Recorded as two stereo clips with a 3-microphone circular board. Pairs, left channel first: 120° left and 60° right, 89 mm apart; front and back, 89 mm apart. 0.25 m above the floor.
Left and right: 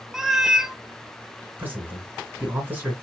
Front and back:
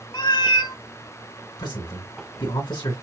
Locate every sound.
0.1 s a cat meowing: 25° left, 0.6 m
1.6 s a man speaking: 5° left, 2.5 m